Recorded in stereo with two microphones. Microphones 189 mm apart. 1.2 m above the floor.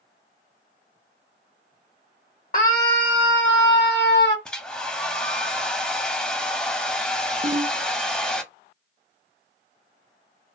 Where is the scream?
45° left (ahead or behind), 0.5 m; by 4.3 s 65° left (ahead or behind), 1.0 m.